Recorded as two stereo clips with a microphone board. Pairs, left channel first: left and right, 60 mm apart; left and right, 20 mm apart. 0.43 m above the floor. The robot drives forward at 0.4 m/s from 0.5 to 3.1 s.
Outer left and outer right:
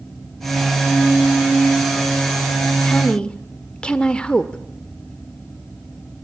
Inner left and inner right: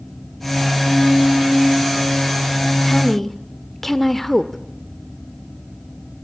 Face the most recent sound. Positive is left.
turn(degrees=15)  # may be behind; listen again after turning